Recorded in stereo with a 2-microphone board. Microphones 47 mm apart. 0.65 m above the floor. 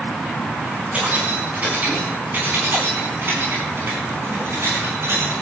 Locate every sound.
0.9 s keys jangling: 25° right (ahead or behind), 4.5 m; by 5.3 s 60° right (ahead or behind), 6 m